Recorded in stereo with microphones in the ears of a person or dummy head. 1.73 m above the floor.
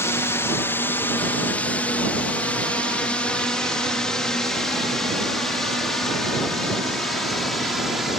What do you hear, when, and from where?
0.0 s a drone: 10° left (ahead or behind); by 8.2 s 5° right (ahead or behind)